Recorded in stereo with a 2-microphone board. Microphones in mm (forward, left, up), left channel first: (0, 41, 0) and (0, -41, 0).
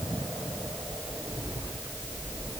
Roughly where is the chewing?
No chewing in this recording.